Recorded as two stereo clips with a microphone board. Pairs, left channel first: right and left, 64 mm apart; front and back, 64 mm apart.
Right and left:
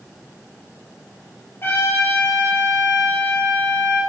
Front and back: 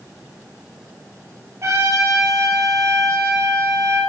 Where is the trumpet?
140° right, 3 m.